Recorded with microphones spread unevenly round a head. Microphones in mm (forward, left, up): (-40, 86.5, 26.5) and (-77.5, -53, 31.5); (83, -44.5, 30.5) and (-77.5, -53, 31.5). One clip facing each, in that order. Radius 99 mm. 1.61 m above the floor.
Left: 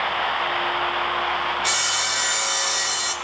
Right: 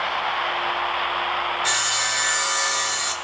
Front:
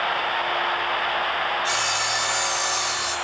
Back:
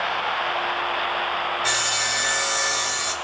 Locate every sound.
1.6 s sawing: 150° left, 5 m